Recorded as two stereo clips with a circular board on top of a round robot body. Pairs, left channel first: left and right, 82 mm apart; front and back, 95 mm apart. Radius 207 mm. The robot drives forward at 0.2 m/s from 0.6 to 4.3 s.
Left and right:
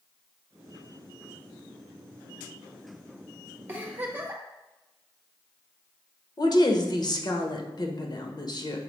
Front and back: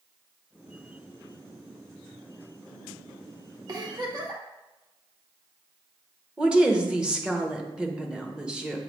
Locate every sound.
3.7 s a giggle: 145° right, 1.4 m; by 4.4 s 150° right, 1.5 m
6.4 s a woman speaking: 100° left, 1.2 m